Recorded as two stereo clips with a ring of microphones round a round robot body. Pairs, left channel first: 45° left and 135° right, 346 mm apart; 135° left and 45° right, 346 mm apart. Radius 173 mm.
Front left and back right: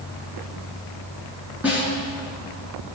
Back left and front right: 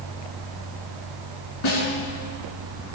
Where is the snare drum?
140° left, 3.5 m.